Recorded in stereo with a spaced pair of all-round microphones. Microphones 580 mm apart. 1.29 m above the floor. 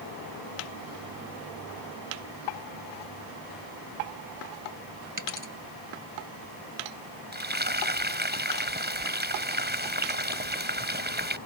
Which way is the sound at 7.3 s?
15° right (ahead or behind).